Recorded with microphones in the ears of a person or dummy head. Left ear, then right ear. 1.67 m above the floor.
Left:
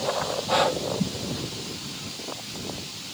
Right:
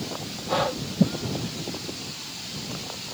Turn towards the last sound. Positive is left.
turn(degrees=20)  # may be behind; listen again after turning